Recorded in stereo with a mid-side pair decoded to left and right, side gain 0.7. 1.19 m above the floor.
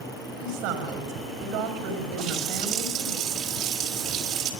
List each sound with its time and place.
0.4 s a woman speaking: 65° right, 5 m
2.2 s a running tap: 55° right, 3.5 m